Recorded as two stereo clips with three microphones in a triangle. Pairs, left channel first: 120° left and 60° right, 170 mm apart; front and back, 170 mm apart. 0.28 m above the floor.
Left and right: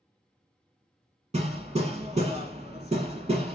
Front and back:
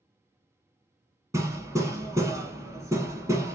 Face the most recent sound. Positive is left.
turn(degrees=-105)